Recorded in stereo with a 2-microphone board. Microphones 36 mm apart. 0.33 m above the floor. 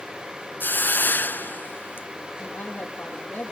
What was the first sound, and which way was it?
A hiss, 65° left (ahead or behind).